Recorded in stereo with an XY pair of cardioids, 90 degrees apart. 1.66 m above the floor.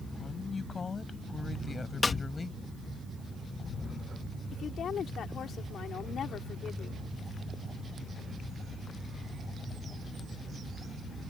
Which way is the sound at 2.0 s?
35° left.